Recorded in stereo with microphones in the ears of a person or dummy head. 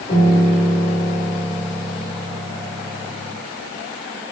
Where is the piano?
45° left (ahead or behind), 4 m.